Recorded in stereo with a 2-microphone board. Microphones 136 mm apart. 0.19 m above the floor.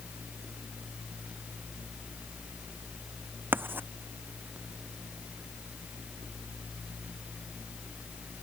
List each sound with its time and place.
3.5 s writing: 15° right (ahead or behind)